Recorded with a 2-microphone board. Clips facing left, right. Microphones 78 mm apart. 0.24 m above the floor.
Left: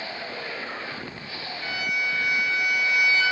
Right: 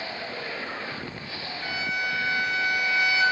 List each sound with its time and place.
1.6 s a violin: 25° right (ahead or behind), 0.6 m